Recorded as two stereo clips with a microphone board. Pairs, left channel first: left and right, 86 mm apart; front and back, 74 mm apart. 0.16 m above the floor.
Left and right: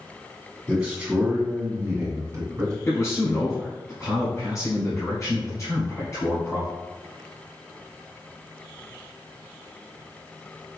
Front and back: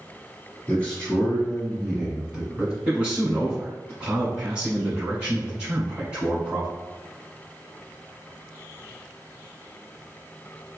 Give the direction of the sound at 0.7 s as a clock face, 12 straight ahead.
1 o'clock.